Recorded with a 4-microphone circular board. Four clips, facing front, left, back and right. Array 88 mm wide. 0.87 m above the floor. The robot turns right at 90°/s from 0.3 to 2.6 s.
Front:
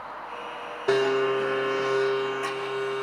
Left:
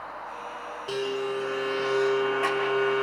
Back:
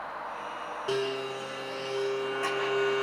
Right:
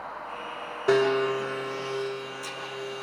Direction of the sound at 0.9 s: 50° right.